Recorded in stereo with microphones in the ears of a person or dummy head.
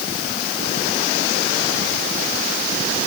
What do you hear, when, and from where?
Only background noise.